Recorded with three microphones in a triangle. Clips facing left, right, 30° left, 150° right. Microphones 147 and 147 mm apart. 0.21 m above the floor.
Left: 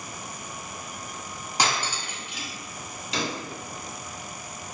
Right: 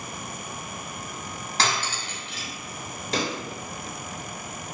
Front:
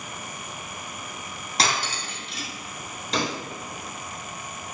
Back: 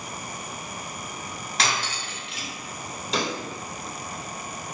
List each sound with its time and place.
1.6 s cutlery clinking: 25° left, 0.6 m
3.1 s a pop: 60° right, 0.8 m